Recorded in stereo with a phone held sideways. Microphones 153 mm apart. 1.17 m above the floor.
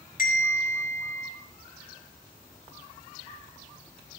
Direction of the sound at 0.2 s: 75° left (ahead or behind).